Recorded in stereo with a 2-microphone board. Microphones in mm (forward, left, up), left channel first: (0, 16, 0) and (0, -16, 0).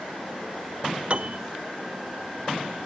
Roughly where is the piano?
Right.